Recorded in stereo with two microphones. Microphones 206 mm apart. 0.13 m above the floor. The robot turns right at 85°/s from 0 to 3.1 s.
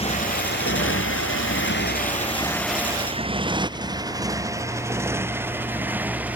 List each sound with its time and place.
0.0 s a motorcycle: 30° left (ahead or behind); by 6.4 s 5° right (ahead or behind)